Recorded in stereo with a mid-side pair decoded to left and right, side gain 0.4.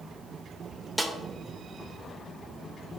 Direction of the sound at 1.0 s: Straight ahead.